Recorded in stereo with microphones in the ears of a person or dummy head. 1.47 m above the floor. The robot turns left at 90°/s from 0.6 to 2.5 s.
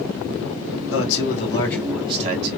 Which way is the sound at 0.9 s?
80° left.